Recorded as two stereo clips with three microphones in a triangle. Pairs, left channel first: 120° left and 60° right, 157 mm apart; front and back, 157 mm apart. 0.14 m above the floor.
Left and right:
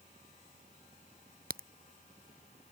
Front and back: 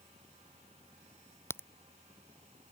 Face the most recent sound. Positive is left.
turn(degrees=-75)